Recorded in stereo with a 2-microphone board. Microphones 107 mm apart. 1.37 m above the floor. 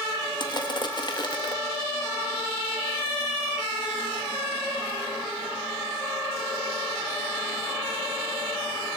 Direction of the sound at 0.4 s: 45° left (ahead or behind).